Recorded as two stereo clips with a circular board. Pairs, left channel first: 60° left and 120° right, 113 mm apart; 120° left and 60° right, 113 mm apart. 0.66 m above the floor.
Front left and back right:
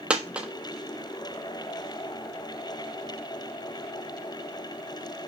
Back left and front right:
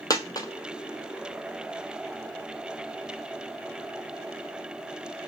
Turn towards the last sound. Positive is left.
turn(degrees=165)